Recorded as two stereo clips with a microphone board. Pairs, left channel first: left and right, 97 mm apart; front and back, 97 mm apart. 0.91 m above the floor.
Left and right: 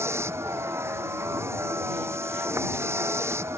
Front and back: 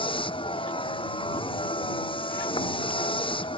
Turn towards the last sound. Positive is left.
turn(degrees=-25)